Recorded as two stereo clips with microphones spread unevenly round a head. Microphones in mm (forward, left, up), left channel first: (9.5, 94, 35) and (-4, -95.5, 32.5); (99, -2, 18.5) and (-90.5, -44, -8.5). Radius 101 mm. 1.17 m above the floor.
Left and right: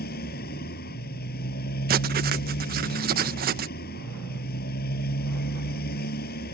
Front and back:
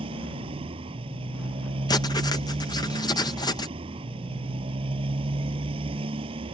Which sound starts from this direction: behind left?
A motorcycle, at 0.0 s.